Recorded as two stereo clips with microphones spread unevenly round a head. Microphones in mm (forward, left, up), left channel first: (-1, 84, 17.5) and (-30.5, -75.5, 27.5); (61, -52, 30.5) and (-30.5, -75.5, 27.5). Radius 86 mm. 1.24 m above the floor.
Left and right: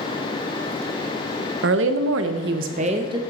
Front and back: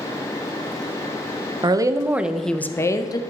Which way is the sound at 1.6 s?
120° right.